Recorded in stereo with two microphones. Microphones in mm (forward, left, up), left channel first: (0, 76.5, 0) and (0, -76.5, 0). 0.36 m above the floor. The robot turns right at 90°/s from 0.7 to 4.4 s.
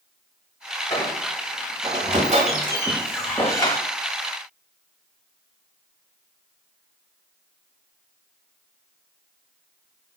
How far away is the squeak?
About 1.0 m.